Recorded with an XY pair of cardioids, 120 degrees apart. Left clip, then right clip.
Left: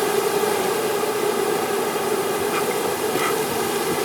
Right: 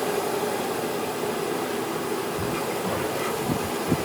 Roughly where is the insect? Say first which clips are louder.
Left 5 dB; ahead left.